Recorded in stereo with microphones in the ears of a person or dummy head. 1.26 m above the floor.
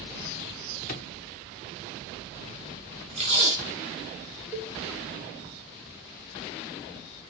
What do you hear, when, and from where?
0.9 s a drawer: 45° left (ahead or behind), 1.6 m
3.2 s tape being pulled: 30° right (ahead or behind), 3.5 m
4.5 s a cowbell: 5° right (ahead or behind), 1.3 m